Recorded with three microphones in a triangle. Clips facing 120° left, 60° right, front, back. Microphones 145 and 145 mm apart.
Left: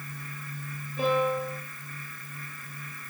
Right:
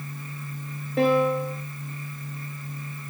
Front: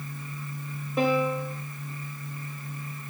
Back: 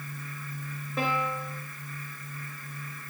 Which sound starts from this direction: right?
A piano, at 1.0 s.